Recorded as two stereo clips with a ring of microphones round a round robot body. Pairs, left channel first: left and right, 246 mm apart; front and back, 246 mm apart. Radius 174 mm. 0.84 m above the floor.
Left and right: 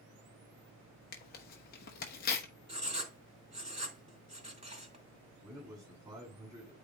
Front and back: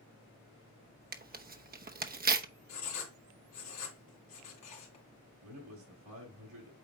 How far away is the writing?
About 3.5 m.